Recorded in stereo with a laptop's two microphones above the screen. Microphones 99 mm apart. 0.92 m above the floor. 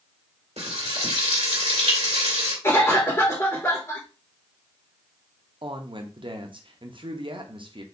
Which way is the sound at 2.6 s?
30° left (ahead or behind).